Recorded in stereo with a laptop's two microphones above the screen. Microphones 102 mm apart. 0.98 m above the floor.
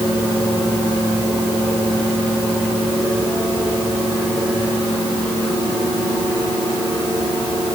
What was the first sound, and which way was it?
Only background noise.